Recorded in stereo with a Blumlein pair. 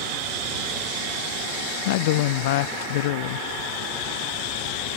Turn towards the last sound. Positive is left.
turn(degrees=50)